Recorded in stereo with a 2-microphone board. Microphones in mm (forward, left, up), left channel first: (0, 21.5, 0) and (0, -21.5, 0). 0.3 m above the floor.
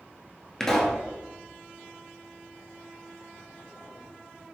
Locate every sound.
0.6 s a pop: 15° left (ahead or behind), 0.8 m